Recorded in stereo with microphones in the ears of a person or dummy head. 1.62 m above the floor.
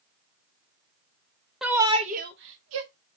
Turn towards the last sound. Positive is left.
turn(degrees=-85)